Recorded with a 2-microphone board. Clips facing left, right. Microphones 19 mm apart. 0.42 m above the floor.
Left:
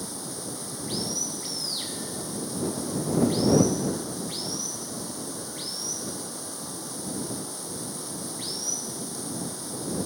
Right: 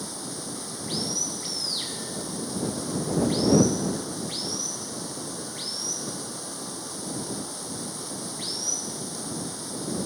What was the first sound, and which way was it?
Running water, 10° right (ahead or behind).